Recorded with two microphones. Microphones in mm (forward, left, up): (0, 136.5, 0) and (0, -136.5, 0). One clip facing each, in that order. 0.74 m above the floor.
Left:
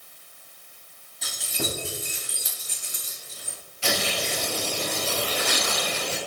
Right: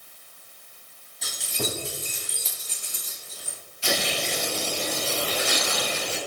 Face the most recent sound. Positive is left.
turn(degrees=75)  # may be behind; listen again after turning